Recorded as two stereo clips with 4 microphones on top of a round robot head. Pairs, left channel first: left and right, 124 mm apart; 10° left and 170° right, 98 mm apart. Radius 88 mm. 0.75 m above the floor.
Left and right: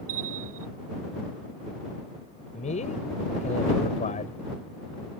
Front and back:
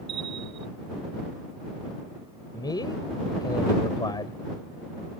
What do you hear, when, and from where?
0.1 s a bell: 120° right
2.5 s a man speaking: 60° left